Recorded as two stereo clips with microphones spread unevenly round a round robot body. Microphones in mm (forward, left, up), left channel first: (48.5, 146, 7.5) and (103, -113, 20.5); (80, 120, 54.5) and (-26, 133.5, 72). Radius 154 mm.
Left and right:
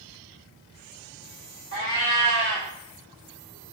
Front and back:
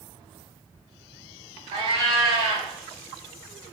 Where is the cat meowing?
150° left, 0.6 m.